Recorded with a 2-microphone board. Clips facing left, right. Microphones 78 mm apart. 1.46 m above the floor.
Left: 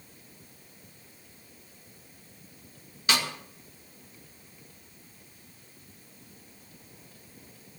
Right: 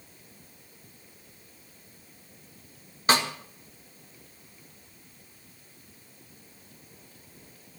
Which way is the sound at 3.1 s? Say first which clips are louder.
Right 5 dB; 35° right (ahead or behind).